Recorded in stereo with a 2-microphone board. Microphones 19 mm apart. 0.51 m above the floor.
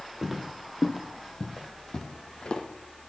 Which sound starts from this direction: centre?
Footsteps, at 0.2 s.